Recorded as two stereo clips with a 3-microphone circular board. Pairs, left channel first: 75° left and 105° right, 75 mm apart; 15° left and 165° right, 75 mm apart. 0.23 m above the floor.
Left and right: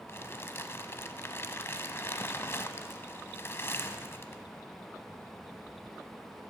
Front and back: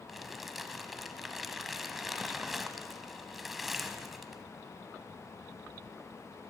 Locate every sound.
0.1 s crumpling: 110° left, 0.8 m